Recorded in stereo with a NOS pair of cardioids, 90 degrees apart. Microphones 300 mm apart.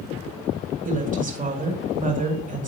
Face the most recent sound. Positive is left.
turn(degrees=-30)